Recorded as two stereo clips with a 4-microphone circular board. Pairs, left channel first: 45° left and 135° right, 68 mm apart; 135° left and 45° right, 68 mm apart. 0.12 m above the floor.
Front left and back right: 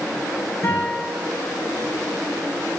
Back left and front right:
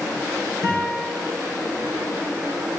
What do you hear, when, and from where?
0.6 s a guitar: 90° left, 5 m